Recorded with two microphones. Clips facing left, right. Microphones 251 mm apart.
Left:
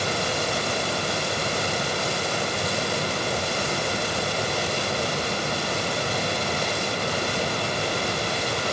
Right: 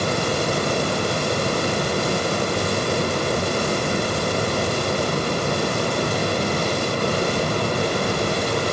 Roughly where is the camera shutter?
I don't hear a camera shutter.